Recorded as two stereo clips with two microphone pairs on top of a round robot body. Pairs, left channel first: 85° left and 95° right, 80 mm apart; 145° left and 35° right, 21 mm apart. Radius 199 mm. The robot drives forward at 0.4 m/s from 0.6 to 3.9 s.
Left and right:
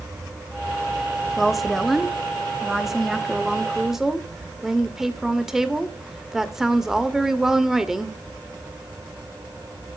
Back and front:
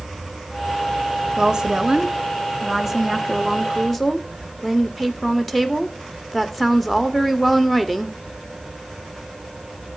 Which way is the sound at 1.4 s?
10° right.